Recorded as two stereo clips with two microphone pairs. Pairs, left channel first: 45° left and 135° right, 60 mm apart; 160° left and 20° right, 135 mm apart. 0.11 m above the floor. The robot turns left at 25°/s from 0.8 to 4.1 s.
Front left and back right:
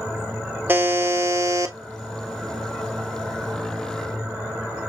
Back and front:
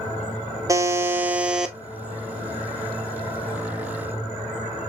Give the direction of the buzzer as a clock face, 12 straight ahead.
3 o'clock.